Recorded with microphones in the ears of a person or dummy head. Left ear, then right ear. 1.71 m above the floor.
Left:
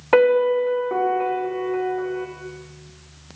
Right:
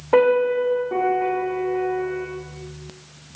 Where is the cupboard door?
No cupboard door in this recording.